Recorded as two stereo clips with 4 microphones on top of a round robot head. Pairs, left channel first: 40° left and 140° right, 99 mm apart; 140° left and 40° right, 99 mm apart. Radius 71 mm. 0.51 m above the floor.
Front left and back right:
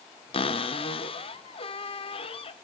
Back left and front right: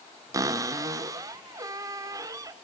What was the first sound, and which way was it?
A cupboard door, 15° left.